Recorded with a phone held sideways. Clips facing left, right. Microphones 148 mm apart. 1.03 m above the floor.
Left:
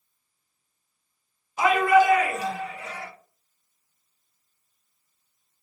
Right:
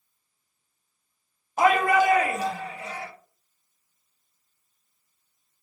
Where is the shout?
50° right (ahead or behind), 1.2 m; by 3.1 s 30° right (ahead or behind), 2 m.